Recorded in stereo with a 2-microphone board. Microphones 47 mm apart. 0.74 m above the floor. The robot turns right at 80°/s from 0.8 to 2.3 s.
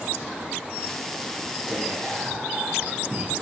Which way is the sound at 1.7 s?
175° right.